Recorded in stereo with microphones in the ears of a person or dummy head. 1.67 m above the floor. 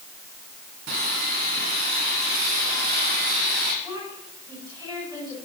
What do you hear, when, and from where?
0.9 s sawing: 55° right (ahead or behind), 2.5 m
3.8 s a woman speaking: 30° right (ahead or behind), 7 m